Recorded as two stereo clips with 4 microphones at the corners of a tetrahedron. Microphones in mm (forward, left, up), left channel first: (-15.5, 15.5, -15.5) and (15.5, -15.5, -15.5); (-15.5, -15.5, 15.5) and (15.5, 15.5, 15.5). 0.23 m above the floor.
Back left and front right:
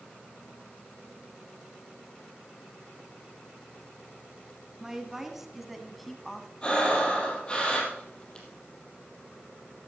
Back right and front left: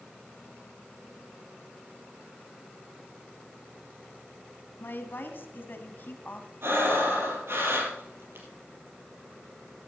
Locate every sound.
4.8 s a woman speaking: 120° right, 2 m; by 6.5 s 150° right, 1.5 m
6.6 s breathing: 70° left, 4 m